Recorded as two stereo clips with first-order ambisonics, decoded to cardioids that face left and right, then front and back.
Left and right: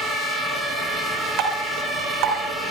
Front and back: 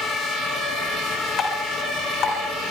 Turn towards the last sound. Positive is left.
turn(degrees=-60)